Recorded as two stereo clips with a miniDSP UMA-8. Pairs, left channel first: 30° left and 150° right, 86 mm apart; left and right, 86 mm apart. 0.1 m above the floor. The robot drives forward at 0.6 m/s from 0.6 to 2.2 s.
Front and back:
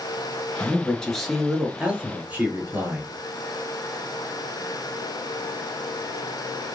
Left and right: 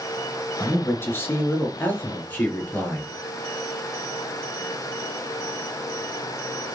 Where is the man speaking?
75° left, 1.1 m; by 3.1 s 150° left, 1.4 m.